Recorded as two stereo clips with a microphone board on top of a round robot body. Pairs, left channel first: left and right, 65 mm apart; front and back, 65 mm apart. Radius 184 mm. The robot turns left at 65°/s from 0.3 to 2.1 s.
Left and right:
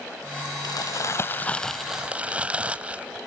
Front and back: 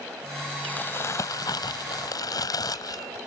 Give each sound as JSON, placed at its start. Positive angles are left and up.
{"t": 0.6, "sound": "crumpling", "azimuth_deg": 75}